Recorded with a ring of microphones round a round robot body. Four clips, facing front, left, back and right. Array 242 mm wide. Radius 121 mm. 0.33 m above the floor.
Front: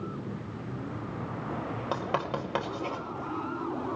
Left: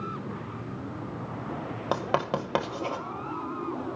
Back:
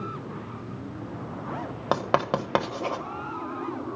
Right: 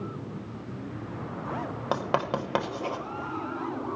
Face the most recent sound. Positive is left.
turn(degrees=175)